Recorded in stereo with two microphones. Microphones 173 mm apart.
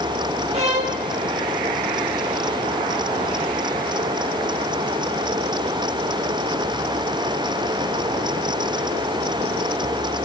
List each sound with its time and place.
0.5 s a violin: 40° right (ahead or behind), 1.7 m